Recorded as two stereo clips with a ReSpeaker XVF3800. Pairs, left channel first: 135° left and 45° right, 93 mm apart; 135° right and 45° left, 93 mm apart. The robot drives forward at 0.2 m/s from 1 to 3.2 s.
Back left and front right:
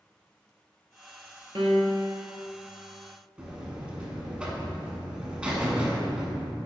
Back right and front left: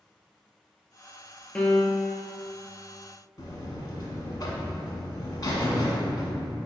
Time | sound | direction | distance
1.6 | a piano | 55° right | 0.7 m
3.4 | a buzzer | 120° right | 0.7 m